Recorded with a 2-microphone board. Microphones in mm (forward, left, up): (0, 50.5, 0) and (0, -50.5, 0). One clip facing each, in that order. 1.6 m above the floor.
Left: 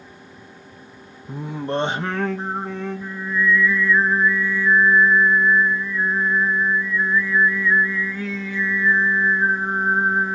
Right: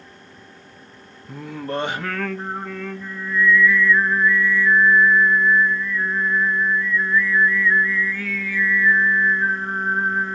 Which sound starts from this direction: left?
Singing, at 1.3 s.